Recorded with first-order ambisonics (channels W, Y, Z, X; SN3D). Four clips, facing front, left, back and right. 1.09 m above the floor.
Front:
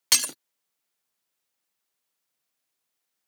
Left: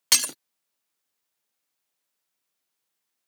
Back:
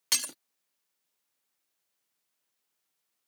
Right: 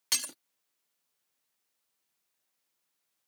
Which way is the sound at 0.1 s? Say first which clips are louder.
Left 9 dB, front 7 dB; 50° left.